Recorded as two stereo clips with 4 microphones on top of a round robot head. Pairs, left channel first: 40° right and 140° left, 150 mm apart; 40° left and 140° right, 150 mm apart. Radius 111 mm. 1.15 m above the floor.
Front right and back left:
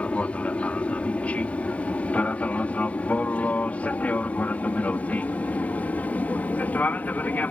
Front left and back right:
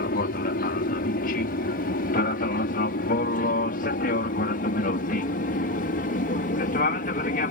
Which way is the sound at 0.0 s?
40° left.